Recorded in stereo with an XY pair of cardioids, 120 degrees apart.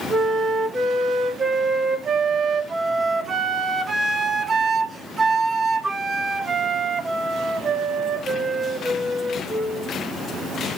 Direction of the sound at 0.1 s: 25° right.